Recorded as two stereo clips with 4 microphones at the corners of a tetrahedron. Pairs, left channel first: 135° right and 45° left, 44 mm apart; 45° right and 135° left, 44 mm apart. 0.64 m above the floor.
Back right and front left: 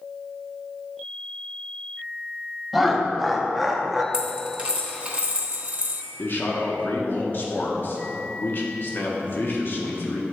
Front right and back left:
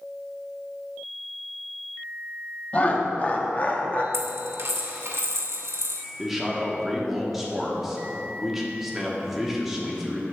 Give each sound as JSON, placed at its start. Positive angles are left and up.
{"t": 2.7, "sound": "laughter", "azimuth_deg": -45, "distance_m": 0.6}
{"t": 4.1, "sound": "a dropped coin", "azimuth_deg": 110, "distance_m": 0.9}
{"t": 6.2, "sound": "a man speaking", "azimuth_deg": -140, "distance_m": 1.0}